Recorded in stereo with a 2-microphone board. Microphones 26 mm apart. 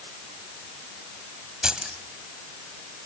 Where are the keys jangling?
30° right (ahead or behind), 2 m.